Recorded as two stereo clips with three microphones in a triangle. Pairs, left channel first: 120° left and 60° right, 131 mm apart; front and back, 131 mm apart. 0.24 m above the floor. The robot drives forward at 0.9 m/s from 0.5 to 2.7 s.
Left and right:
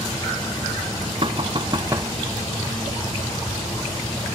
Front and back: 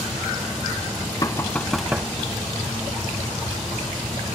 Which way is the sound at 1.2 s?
50° right.